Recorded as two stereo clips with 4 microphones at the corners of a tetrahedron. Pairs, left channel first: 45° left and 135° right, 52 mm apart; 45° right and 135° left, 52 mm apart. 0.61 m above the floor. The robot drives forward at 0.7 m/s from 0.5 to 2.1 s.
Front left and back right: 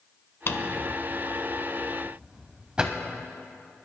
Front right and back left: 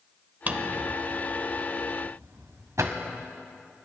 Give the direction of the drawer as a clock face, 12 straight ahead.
9 o'clock.